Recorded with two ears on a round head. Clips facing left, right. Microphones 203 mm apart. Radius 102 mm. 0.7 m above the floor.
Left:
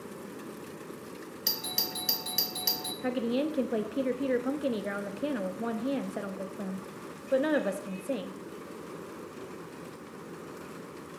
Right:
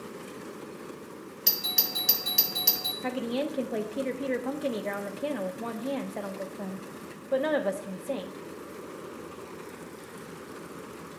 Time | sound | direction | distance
1.5 | a doorbell | centre (ahead or behind) | 1.0 m
3.0 | a woman speaking | 10° left (ahead or behind) | 0.6 m